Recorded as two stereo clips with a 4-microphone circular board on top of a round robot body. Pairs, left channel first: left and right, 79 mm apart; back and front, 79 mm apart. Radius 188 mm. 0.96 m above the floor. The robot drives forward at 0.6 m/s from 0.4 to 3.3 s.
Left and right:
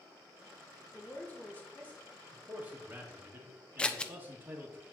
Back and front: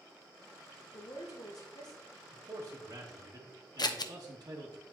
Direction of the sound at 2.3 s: 25° right.